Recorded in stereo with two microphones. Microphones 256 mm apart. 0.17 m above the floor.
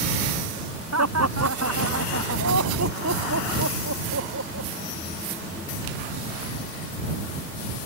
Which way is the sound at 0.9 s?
75° right (ahead or behind).